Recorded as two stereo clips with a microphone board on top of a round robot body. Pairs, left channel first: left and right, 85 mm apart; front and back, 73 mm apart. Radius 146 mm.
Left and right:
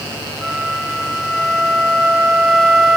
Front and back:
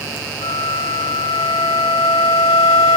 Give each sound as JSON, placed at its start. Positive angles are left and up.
{"t": 0.4, "sound": "a flute", "azimuth_deg": 0, "distance_m": 2.0}